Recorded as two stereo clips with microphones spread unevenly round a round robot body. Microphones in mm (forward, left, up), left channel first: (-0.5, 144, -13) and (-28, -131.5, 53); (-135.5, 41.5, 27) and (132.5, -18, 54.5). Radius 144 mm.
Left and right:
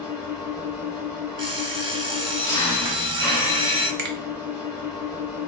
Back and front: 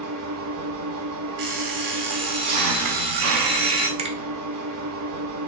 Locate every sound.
0.0 s an engine running: straight ahead, 0.9 m
1.4 s an alarm clock: 20° right, 0.8 m
4.0 s a finger snap: 65° right, 0.6 m